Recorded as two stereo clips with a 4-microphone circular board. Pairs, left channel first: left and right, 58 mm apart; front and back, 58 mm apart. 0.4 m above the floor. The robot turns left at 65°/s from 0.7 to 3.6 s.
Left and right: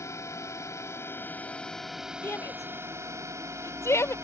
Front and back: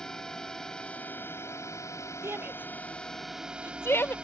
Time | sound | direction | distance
0.0 | a drone | 80° left | ?
2.2 | a shout | 140° left | ?